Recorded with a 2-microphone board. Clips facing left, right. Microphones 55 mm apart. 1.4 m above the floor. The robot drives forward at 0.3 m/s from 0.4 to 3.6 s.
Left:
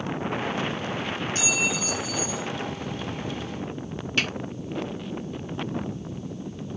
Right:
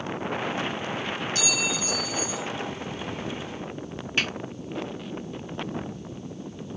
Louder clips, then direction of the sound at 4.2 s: Even; 10° right (ahead or behind).